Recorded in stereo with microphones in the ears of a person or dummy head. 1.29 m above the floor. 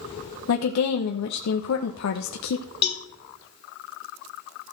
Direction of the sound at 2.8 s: 35° left (ahead or behind).